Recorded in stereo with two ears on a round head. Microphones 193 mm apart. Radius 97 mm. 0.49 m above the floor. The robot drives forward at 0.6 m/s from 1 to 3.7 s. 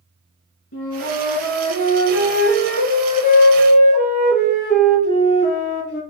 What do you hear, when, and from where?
0.7 s a flute: 65° left (ahead or behind), 4 m; by 6.0 s 50° left (ahead or behind), 5 m